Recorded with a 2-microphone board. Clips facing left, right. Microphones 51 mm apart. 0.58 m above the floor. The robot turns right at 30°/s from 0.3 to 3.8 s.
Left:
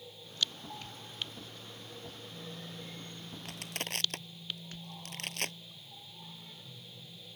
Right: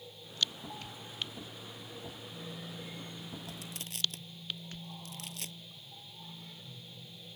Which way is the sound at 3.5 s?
70° left (ahead or behind).